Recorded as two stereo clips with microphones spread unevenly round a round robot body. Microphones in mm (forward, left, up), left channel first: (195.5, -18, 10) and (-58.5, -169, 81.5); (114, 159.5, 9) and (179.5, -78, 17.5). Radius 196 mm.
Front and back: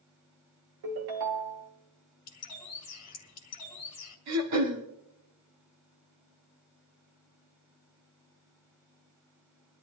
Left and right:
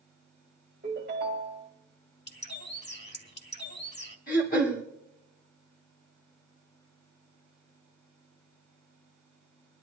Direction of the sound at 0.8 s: 145° right.